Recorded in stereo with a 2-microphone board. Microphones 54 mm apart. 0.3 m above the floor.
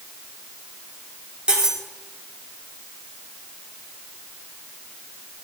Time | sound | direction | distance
1.5 | cutlery clinking | 15° right (ahead or behind) | 4.5 m